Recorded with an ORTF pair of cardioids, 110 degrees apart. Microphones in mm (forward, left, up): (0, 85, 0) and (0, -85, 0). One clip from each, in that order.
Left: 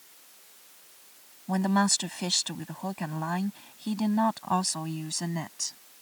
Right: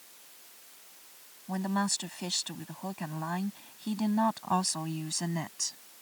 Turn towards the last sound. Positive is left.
turn(degrees=5)